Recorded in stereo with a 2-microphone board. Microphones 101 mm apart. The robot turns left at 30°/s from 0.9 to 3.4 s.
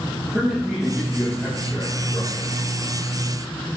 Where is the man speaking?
170° right, 7 m; by 2.5 s 145° left, 7 m.